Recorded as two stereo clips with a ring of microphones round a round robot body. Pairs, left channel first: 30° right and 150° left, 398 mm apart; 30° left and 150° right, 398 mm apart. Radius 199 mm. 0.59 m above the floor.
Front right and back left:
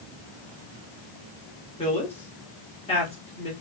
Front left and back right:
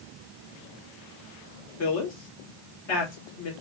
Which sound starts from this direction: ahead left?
A woman speaking, at 1.8 s.